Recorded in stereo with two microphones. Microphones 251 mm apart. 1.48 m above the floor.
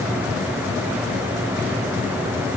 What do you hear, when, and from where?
Only background noise.